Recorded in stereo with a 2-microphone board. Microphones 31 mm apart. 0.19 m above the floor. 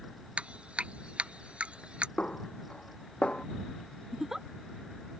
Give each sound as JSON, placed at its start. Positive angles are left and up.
{"t": 0.4, "sound": "dripping", "side_deg": -40}
{"t": 2.2, "sound": "a snare drum", "side_deg": 35}
{"t": 4.1, "sound": "a giggle", "side_deg": -15}